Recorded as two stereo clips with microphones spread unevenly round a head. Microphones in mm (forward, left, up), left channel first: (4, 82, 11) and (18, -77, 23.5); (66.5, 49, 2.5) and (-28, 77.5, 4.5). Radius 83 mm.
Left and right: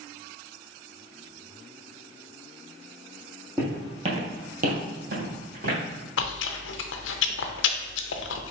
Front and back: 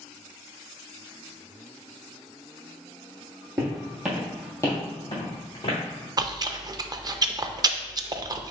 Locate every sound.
3.6 s footsteps: 155° right, 1.5 m; by 5.8 s 55° right, 2.5 m
6.2 s chewing: 110° left, 0.5 m